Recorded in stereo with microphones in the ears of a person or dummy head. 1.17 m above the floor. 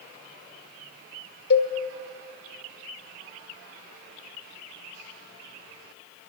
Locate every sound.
1.5 s a cowbell: 65° left (ahead or behind), 1.7 m